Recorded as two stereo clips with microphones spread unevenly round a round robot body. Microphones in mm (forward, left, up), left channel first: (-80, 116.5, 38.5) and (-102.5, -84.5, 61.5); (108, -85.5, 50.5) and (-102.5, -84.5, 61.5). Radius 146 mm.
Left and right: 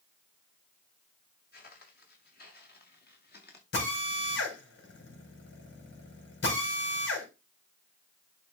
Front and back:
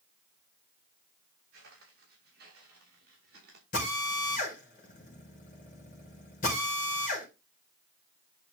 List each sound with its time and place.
1.5 s footsteps: 125° left, 6 m
3.7 s a drill: 55° left, 4 m